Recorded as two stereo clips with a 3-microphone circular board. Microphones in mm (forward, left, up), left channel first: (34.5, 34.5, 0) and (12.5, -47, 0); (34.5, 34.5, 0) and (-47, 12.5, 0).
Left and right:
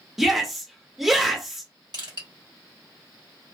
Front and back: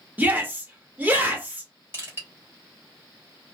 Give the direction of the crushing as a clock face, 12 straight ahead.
4 o'clock.